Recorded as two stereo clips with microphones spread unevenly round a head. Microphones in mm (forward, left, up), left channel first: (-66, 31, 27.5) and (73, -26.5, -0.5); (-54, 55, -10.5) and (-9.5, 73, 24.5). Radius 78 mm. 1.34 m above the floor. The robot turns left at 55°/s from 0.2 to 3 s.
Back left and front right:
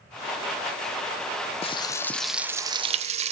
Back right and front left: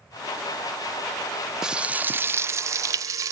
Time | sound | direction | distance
1.6 | frying | 100° left | 0.6 m